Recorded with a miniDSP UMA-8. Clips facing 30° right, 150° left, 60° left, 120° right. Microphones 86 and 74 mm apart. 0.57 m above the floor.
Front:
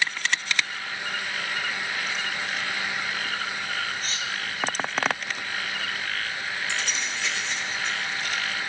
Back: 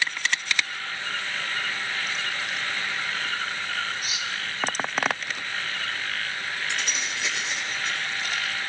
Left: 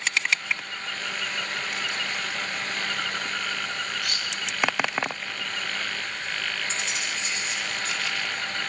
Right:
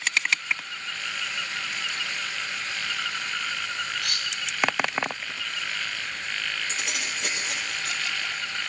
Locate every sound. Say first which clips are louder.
4.0 s cutlery clinking: front 1 dB, left 1 dB; 130° right, 2.5 m
6.7 s keys jangling: even, left 1 dB; 125° right, 8 m